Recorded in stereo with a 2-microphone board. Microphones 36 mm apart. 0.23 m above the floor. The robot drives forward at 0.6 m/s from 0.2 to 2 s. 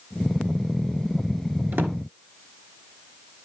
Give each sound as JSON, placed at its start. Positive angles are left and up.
{"t": 1.7, "sound": "a drawer", "side_deg": -70, "distance_m": 1.6}